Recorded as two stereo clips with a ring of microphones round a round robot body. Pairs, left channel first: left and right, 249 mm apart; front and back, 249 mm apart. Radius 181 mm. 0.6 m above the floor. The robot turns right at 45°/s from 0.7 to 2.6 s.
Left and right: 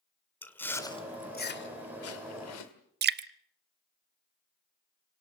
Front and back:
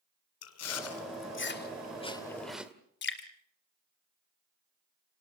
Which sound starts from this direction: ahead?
Chewing, at 0.4 s.